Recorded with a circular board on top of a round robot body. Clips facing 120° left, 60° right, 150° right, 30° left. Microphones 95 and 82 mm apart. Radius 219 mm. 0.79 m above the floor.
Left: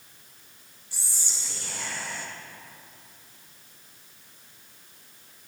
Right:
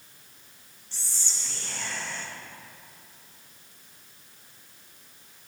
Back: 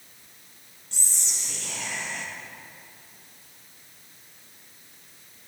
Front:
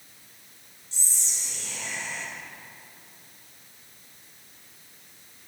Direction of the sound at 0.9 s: 160° right.